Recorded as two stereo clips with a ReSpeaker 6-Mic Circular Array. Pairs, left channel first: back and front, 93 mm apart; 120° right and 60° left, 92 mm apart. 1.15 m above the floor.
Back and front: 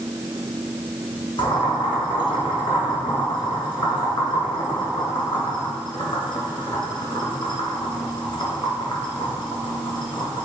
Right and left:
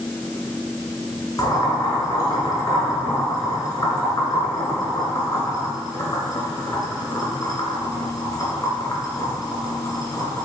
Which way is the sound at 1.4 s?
165° right.